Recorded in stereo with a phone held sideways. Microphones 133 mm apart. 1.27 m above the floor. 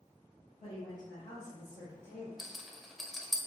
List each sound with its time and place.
0.6 s a woman speaking: 80° left, 1.8 m; by 2.3 s 75° left (ahead or behind), 0.8 m
2.4 s a rattle: centre (ahead or behind), 0.6 m